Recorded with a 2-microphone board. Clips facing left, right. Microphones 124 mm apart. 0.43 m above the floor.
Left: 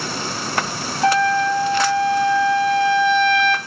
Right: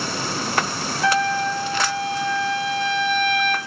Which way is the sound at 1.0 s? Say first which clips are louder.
Left 4 dB; 35° left (ahead or behind).